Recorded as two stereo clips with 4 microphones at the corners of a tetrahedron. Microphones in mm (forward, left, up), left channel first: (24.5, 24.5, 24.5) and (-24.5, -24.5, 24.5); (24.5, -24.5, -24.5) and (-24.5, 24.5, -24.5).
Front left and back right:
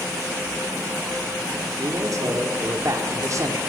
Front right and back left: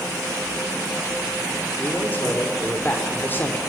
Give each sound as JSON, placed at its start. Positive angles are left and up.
{"t": 1.8, "sound": "a man speaking", "azimuth_deg": -100, "distance_m": 2.5}